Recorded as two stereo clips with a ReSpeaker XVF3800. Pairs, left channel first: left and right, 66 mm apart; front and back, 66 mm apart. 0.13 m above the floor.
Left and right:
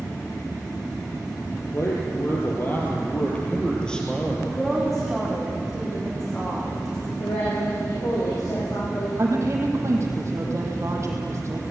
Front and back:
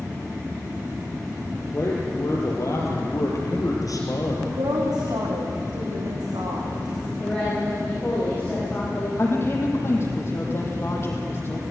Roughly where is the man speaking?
Ahead left.